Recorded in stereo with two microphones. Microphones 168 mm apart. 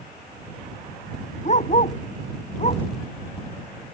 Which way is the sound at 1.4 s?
45° left (ahead or behind).